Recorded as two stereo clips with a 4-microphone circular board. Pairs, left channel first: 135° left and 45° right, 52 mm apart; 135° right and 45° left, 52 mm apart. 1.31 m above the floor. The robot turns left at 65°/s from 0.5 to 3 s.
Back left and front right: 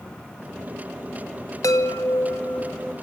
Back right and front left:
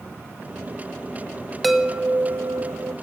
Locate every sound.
1.6 s a chime: 135° left, 2.5 m; by 2.9 s 50° left, 2.5 m